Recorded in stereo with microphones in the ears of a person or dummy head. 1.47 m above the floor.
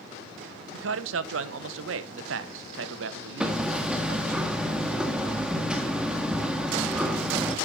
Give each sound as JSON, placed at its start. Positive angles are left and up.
{"t": 0.7, "sound": "a man speaking", "side_deg": -80, "distance_m": 1.2}
{"t": 3.4, "sound": "hammering", "side_deg": -5, "distance_m": 1.8}